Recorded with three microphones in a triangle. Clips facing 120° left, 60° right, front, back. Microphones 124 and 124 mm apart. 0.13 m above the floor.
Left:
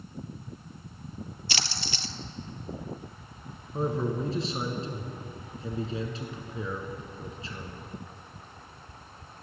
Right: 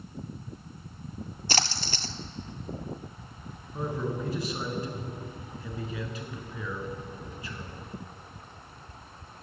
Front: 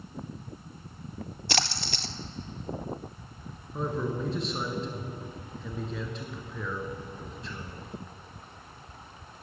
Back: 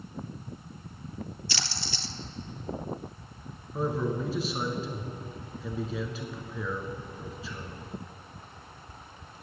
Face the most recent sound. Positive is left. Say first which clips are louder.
# left 3 dB, back 2 dB
turn(degrees=95)